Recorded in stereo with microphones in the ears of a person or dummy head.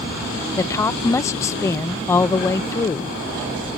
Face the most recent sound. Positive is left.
turn(degrees=15)  # may be behind; listen again after turning